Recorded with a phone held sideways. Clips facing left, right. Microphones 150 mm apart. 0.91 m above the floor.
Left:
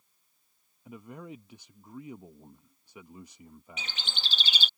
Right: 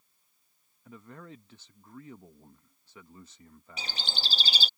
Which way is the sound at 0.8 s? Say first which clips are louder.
Left 4 dB; 15° left (ahead or behind).